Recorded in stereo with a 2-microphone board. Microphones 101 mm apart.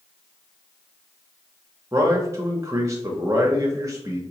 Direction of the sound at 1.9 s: 30° right (ahead or behind).